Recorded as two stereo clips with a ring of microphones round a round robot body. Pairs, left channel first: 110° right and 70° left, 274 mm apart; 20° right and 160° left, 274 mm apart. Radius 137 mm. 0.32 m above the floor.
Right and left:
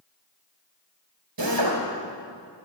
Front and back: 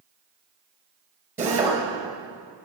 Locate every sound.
1.4 s a drill: 75° left, 4 m